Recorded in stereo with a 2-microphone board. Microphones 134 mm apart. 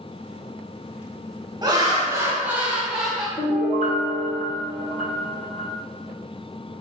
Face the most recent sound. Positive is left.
turn(degrees=65)  # may be behind; listen again after turning